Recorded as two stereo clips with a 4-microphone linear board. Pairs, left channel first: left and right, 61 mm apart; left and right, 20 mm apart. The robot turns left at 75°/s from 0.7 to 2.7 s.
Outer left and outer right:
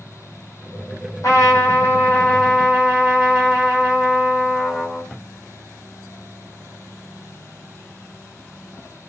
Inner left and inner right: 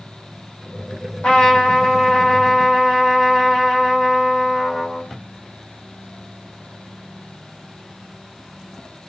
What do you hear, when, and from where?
1.2 s a trumpet: 95° left, 1.3 m; by 5.1 s 15° right, 1.3 m